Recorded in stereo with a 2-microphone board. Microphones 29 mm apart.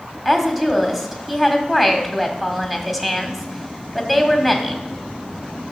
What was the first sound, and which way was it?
A woman speaking, 5° right (ahead or behind).